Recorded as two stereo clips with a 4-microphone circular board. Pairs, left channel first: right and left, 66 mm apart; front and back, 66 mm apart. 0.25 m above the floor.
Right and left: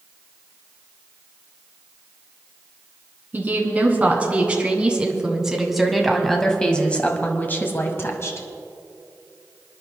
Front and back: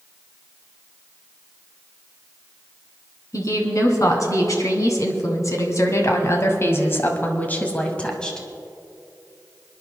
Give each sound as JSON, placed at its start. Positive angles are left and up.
{"t": 3.3, "sound": "a woman speaking", "azimuth_deg": 30, "distance_m": 2.5}